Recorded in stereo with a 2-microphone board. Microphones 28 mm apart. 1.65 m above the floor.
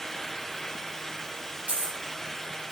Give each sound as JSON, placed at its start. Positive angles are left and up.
{"t": 1.7, "sound": "a dropped coin", "side_deg": -75, "distance_m": 4.0}